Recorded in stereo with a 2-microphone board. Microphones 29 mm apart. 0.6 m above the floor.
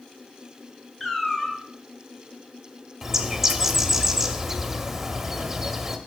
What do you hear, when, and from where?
1.0 s a cat meowing: 15° left (ahead or behind), 1.7 m
3.0 s a bird: 10° right (ahead or behind), 0.8 m